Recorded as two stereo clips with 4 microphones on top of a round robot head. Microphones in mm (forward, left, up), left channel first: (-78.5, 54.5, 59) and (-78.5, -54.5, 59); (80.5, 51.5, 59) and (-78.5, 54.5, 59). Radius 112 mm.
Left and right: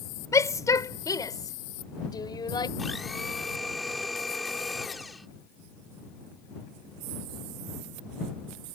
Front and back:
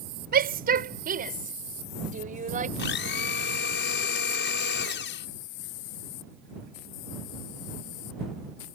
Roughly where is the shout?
Behind left.